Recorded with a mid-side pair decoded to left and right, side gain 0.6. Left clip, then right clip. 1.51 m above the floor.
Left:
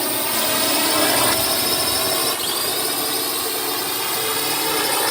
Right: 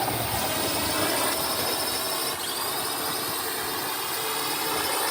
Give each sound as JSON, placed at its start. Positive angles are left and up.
{"t": 0.0, "sound": "a drone", "azimuth_deg": 50}